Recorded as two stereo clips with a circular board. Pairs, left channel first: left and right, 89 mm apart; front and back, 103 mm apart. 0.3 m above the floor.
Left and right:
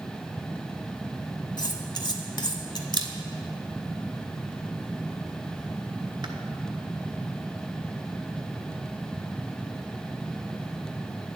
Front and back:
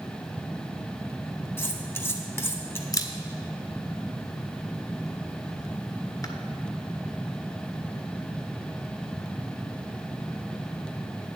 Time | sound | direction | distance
1.6 | cutlery clinking | 65° left | 1.1 m
2.9 | a camera shutter | 55° right | 1.0 m